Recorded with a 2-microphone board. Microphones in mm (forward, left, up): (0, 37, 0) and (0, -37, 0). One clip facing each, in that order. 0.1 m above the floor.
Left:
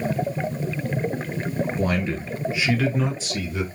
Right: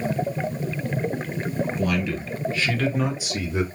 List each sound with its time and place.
1.8 s a man speaking: 35° left (ahead or behind), 1.7 m; by 3.6 s 25° right (ahead or behind), 1.5 m